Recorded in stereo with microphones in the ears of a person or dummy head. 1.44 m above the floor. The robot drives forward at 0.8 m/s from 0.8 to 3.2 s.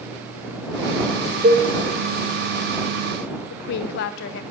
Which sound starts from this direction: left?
A woman speaking, at 3.5 s.